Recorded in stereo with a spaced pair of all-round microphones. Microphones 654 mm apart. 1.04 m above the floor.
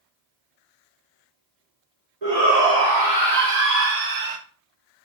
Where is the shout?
80° right, 2.5 m; by 4.4 s 55° right (ahead or behind), 0.5 m.